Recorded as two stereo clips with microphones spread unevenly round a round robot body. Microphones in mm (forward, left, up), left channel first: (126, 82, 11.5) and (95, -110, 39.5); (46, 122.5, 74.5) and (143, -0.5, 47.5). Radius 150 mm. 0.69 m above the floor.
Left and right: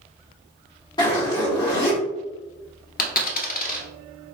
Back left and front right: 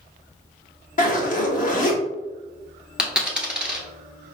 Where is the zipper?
130° left, 1.4 m.